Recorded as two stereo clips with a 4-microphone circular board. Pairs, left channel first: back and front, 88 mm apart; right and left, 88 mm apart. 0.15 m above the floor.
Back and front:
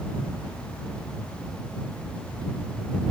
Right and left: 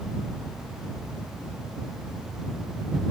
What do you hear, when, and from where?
Only background noise.